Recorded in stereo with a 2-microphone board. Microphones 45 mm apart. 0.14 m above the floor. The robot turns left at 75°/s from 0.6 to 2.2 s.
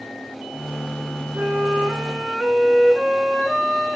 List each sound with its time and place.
1.4 s a flute: 100° right, 1.1 m; by 4.0 s 165° right, 1.1 m